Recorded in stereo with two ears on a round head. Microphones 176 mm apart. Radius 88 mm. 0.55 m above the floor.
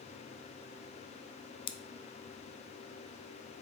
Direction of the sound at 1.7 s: 25° left (ahead or behind).